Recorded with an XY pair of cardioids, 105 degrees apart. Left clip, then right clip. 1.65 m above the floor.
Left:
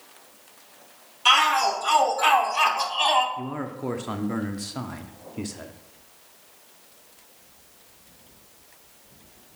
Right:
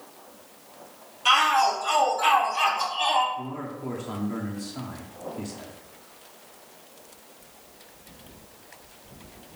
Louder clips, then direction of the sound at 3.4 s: Left 2 dB; 50° left.